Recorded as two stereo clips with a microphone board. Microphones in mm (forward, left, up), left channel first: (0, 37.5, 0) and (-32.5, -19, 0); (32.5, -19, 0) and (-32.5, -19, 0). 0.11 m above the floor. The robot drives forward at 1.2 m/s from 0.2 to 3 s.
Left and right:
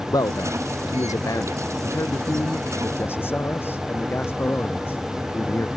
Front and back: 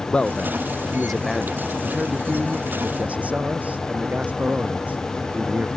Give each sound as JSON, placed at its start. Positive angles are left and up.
{"t": 0.1, "sound": "a man speaking", "azimuth_deg": 75}